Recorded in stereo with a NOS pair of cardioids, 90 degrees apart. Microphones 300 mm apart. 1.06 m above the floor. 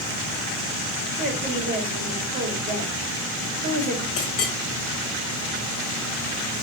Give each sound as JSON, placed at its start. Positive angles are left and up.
{"t": 1.2, "sound": "a woman speaking", "azimuth_deg": -30, "distance_m": 1.9}
{"t": 4.2, "sound": "a clink", "azimuth_deg": 45, "distance_m": 1.6}